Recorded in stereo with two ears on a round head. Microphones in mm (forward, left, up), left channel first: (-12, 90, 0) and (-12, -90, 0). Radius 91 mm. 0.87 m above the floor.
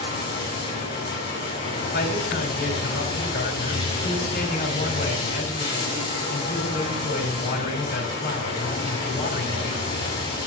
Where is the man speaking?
45° left (ahead or behind), 3 m.